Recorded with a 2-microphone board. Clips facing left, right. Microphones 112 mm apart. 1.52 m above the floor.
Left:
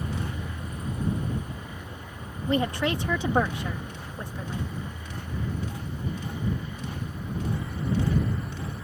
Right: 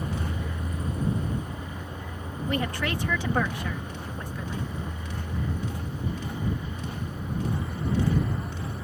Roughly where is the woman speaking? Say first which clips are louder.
Left 4 dB; left.